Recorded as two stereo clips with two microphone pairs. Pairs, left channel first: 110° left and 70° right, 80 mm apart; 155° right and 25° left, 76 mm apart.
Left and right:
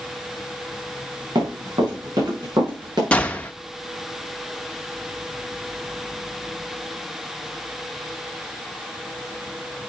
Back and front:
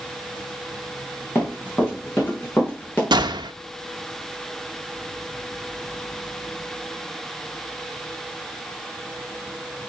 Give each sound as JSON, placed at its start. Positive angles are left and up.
{"t": 1.4, "sound": "running footsteps", "azimuth_deg": -90, "distance_m": 4.0}
{"t": 3.1, "sound": "a gunshot", "azimuth_deg": 35, "distance_m": 0.6}